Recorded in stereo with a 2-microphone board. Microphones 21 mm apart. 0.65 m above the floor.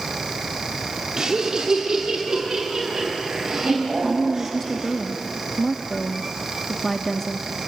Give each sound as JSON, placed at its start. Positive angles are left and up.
{"t": 1.2, "sound": "laughter", "side_deg": -35, "distance_m": 1.9}
{"t": 4.0, "sound": "a woman speaking", "side_deg": 15, "distance_m": 0.8}